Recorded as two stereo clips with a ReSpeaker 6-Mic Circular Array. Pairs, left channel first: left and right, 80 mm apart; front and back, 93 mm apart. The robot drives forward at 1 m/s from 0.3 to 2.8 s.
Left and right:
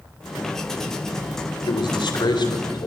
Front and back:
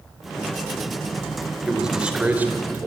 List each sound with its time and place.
1.7 s a man speaking: 95° left, 3 m; by 2.9 s 115° left, 3.5 m